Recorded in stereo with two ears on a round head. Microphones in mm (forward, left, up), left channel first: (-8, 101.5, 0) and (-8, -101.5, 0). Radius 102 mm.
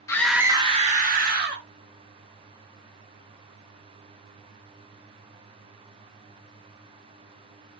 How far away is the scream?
About 0.6 m.